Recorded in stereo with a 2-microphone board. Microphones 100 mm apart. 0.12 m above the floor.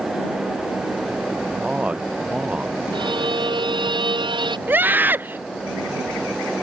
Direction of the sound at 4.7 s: 20° right (ahead or behind).